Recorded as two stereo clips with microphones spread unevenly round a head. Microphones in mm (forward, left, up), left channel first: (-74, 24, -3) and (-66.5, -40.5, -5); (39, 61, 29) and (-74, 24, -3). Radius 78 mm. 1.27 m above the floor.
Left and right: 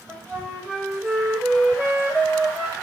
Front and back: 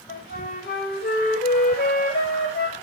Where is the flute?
5° right, 6 m.